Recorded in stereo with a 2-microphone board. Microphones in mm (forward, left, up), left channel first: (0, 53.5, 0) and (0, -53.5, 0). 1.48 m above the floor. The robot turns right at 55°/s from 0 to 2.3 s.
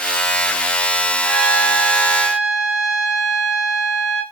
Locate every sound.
1.2 s a trumpet: 145° left, 3 m; by 4.2 s 155° right, 3 m